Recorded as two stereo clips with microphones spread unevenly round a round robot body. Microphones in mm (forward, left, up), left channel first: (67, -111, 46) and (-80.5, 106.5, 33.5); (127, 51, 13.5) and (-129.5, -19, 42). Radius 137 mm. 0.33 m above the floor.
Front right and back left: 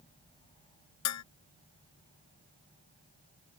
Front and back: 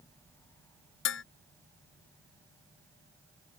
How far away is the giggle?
No giggle in this recording.